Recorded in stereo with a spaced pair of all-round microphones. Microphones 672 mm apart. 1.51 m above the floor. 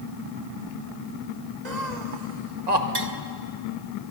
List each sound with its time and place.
1.6 s laughter: 75° right (ahead or behind), 1.9 m
3.0 s tapping: 35° right (ahead or behind), 1.2 m